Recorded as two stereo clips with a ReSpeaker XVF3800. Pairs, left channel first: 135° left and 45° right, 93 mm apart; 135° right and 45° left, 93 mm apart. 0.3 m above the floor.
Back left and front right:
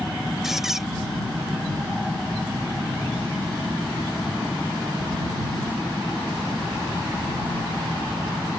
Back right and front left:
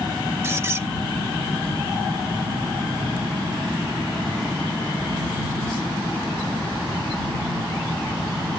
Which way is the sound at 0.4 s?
40° left.